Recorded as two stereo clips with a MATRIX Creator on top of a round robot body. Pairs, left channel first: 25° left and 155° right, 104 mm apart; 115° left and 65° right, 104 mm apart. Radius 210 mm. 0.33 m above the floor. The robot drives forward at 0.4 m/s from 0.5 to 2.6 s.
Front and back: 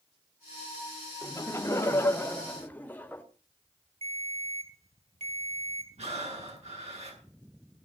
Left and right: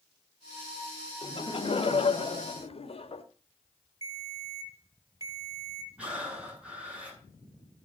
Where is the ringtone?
125° right, 5 m.